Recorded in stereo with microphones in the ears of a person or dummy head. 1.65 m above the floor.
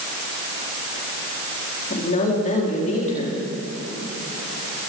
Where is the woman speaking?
40° left (ahead or behind), 4 m.